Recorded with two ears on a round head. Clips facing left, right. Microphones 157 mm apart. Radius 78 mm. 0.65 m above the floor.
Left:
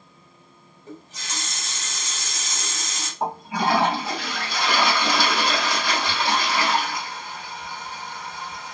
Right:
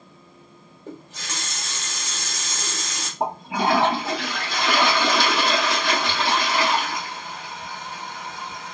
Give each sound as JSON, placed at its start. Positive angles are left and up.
{"t": 0.9, "sound": "a running tap", "side_deg": -45, "distance_m": 1.3}
{"t": 3.2, "sound": "a toilet flushing", "side_deg": -45, "distance_m": 1.2}